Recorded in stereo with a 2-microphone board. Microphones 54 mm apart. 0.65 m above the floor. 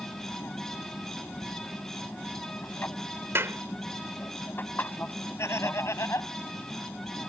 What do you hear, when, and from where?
0.0 s an aircraft: 40° left (ahead or behind)
3.4 s a clap: 50° right (ahead or behind)
5.4 s laughter: 60° left (ahead or behind)